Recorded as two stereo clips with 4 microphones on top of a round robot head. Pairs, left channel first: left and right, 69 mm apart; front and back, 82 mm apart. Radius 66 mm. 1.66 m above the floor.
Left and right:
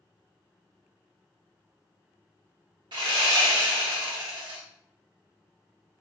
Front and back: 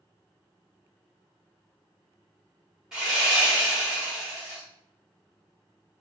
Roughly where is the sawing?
Right.